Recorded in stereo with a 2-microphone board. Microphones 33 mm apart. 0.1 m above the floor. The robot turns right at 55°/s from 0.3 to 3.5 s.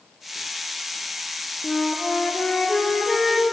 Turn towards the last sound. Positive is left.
turn(degrees=-160)